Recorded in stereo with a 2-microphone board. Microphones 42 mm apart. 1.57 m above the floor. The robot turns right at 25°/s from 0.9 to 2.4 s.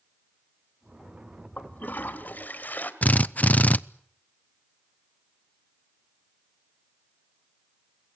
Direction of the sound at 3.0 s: 40° left (ahead or behind).